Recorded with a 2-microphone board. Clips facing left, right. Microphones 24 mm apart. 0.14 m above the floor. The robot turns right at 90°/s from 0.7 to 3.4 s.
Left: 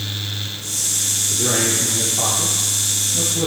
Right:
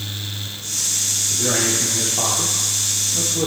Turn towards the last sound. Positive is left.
turn(degrees=-15)